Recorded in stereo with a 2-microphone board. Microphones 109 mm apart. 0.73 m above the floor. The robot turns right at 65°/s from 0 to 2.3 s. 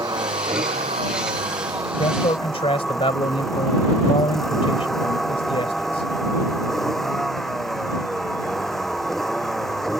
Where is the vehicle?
145° right; by 10.0 s straight ahead.